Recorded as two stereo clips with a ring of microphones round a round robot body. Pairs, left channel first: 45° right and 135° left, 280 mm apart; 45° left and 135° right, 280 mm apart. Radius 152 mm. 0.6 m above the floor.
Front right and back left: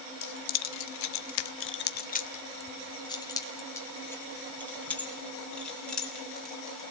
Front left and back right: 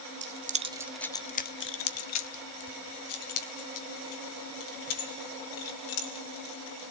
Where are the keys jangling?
85° right, 1.3 m; by 6.8 s 45° left, 6.5 m.